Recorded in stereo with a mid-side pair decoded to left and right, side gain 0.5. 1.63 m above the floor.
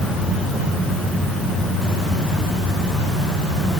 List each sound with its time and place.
Only background noise.